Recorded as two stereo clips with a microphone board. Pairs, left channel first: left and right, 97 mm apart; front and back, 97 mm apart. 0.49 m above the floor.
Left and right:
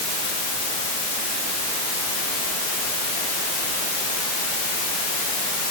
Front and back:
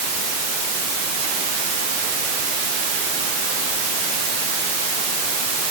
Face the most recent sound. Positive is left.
No sound to turn to.